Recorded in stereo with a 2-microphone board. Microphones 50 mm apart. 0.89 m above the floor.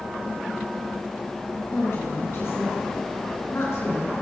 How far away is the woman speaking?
About 9 m.